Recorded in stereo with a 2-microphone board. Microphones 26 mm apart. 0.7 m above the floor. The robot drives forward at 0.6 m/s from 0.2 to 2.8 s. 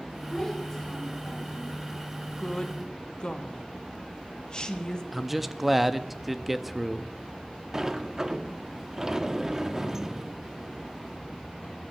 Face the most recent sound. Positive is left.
turn(degrees=-20)  # may be behind; listen again after turning